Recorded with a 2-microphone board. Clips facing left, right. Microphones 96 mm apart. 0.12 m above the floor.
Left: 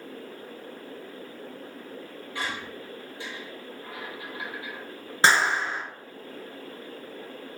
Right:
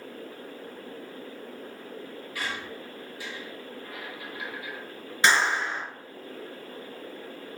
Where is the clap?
35° left (ahead or behind), 1.6 m.